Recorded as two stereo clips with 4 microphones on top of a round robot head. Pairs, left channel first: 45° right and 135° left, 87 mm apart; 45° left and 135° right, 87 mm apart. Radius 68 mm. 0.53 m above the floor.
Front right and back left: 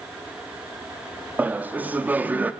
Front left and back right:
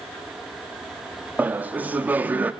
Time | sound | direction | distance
1.4 | laughter | straight behind | 0.7 m